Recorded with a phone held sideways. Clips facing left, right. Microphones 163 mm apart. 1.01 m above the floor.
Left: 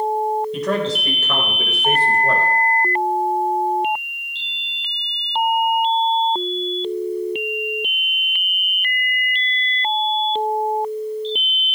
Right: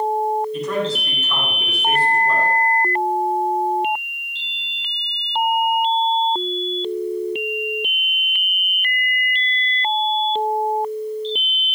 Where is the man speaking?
85° left, 4 m; by 2.5 s 80° left, 3.5 m.